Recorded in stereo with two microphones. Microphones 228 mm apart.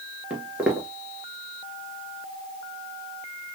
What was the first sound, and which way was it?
Footsteps, 5° right (ahead or behind).